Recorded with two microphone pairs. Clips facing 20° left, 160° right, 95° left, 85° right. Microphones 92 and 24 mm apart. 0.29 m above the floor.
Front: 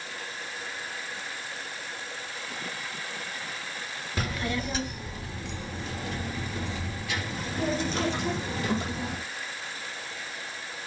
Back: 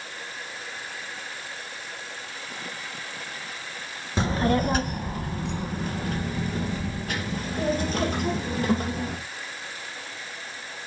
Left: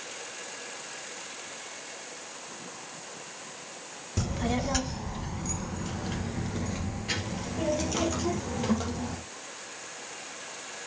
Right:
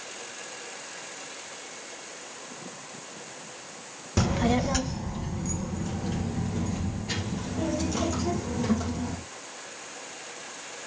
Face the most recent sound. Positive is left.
turn(degrees=155)